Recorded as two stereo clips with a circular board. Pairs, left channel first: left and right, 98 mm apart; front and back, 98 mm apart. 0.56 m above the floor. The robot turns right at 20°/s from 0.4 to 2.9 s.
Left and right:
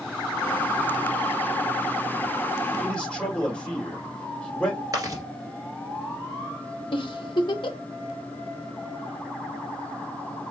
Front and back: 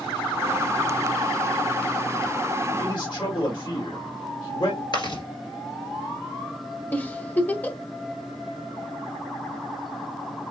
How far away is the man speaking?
About 1.9 m.